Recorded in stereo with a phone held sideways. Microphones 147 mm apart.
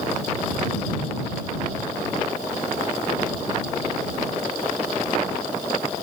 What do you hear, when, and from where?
Only background noise.